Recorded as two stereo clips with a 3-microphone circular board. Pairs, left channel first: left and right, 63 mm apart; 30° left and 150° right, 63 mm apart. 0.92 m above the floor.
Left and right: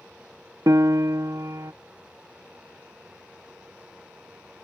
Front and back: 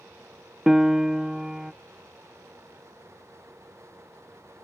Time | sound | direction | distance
0.7 | a piano | 70° right | ?